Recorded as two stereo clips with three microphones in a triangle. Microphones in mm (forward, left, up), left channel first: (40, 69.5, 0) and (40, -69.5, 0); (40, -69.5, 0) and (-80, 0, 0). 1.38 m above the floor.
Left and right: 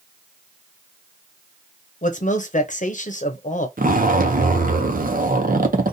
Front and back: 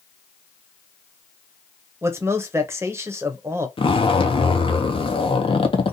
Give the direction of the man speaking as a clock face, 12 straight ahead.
9 o'clock.